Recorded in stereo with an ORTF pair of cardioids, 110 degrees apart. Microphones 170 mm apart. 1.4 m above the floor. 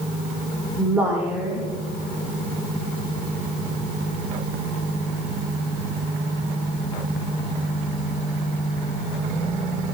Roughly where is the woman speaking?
Ahead.